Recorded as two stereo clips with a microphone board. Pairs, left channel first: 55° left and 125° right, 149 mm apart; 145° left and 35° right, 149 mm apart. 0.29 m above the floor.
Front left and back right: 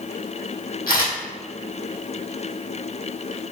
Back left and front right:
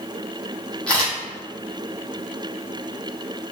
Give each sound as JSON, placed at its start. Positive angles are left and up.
{"t": 0.9, "sound": "a camera shutter", "azimuth_deg": 65, "distance_m": 1.5}